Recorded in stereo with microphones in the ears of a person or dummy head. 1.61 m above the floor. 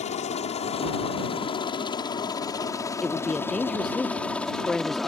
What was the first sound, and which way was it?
A helicopter, 35° left (ahead or behind).